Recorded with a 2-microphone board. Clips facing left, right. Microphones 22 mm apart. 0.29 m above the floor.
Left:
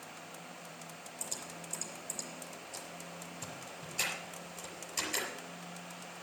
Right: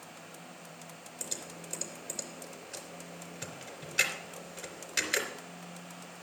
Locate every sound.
1.2 s typing on a keyboard: 65° right (ahead or behind), 3.5 m